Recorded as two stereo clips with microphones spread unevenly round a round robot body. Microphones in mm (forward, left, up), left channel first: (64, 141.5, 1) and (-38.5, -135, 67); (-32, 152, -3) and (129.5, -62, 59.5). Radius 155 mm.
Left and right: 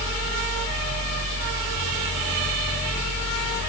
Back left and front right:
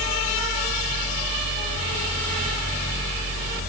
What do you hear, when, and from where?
Only background noise.